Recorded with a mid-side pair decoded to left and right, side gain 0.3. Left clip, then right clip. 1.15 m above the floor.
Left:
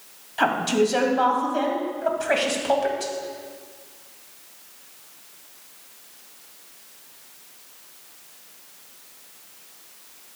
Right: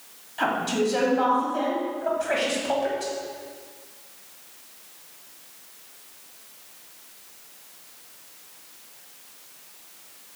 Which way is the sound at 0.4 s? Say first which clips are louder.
Left 4 dB; 60° left.